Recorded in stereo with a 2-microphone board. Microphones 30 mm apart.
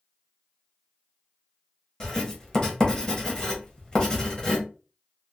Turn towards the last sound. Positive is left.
turn(degrees=25)  # may be behind; listen again after turning